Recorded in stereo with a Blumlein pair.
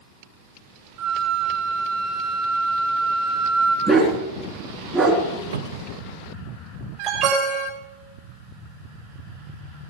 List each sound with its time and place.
1.0 s a flute: 40° right, 4.5 m
3.9 s a dog barking: 15° right, 3 m
5.5 s a cupboard door: 65° right, 0.7 m
7.0 s an alarm: 35° right, 5 m